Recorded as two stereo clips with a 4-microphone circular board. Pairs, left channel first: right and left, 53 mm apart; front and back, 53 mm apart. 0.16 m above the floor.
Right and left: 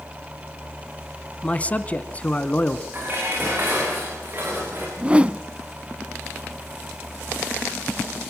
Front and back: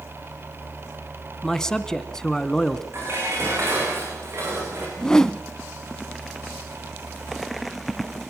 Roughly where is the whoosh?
Ahead left.